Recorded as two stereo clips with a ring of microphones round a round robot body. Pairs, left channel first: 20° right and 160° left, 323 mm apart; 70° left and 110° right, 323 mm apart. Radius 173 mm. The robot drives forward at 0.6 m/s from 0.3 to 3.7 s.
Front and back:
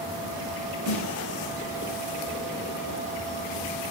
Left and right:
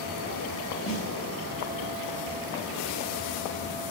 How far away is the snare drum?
About 3 m.